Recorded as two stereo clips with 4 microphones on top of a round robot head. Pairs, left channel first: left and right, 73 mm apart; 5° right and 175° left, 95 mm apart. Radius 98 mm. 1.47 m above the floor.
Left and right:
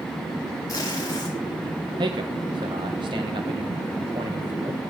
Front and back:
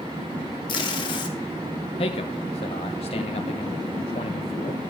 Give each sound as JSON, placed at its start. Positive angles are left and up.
{"t": 0.7, "sound": "tape being pulled", "azimuth_deg": 25, "distance_m": 0.8}
{"t": 2.0, "sound": "a man speaking", "azimuth_deg": -45, "distance_m": 0.8}